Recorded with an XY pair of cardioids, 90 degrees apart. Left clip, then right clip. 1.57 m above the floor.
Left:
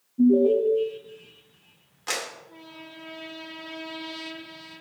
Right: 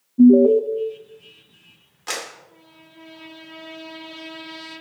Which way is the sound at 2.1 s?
5° right.